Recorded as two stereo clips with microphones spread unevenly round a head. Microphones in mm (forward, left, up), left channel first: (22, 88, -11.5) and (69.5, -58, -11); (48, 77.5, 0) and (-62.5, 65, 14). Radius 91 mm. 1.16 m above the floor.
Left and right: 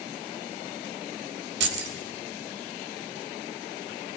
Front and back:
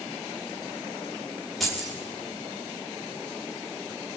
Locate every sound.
1.6 s keys jangling: 85° right, 1.6 m